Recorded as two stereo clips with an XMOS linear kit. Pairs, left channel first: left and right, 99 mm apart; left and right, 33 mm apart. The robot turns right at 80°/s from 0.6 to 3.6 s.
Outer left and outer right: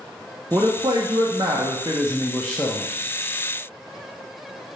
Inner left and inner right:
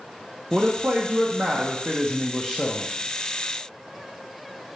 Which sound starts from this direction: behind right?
A man speaking, at 0.5 s.